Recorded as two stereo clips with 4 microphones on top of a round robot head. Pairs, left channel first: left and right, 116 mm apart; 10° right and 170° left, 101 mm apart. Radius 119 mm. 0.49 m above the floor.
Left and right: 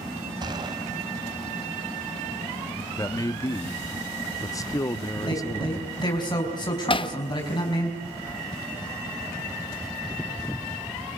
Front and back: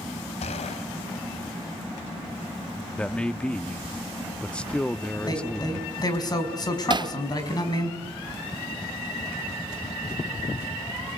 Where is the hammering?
130° left, 1.0 m.